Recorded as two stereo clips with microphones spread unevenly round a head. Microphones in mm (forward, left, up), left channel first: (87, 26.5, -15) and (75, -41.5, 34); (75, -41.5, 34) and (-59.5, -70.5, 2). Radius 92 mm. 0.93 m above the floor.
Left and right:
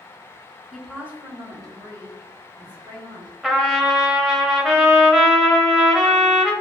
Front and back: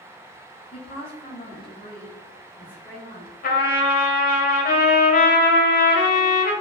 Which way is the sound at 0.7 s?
65° left.